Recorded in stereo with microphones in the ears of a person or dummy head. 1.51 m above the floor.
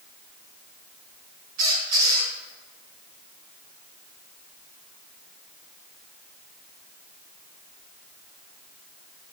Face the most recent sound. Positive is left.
turn(degrees=-50)  # may be behind; listen again after turning